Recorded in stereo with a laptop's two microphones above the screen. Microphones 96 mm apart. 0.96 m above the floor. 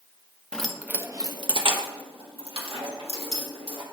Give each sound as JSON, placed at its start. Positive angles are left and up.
{"t": 0.5, "sound": "keys jangling", "side_deg": 10, "distance_m": 0.6}